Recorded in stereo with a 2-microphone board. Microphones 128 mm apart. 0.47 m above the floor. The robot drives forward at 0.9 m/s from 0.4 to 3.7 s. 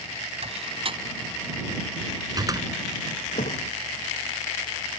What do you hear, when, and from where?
0.4 s a door slam: 55° right (ahead or behind); by 2.7 s 30° right (ahead or behind)
3.4 s a thud: 75° left (ahead or behind)